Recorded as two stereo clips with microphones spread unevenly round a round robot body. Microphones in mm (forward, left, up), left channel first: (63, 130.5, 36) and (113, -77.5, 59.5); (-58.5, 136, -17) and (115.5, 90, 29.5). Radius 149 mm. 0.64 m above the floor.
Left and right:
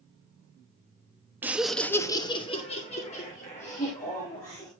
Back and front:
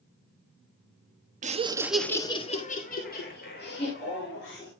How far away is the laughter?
About 1.2 m.